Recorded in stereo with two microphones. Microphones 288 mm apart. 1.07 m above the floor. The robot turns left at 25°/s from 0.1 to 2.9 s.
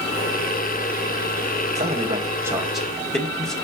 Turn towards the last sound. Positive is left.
turn(degrees=0)  # may be behind; listen again after turning